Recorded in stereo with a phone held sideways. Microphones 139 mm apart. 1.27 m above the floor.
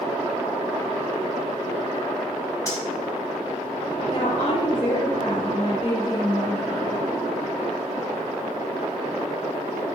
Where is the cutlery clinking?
25° left (ahead or behind), 2.5 m.